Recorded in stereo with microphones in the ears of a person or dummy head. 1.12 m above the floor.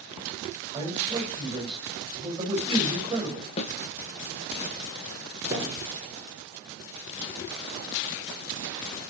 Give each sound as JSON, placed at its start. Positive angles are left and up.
{"t": 0.7, "sound": "a man speaking", "side_deg": -25, "distance_m": 4.5}
{"t": 3.6, "sound": "a snare drum", "side_deg": 30, "distance_m": 1.0}
{"t": 5.5, "sound": "a thud", "side_deg": -25, "distance_m": 6.5}